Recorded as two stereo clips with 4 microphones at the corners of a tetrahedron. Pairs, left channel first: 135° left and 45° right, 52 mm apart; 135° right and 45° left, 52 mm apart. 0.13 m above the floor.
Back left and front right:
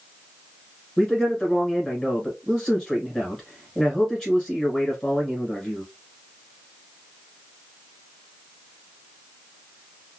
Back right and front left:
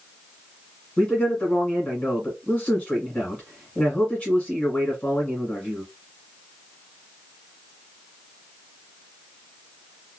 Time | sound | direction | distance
1.0 | a man speaking | 165° right | 1.5 m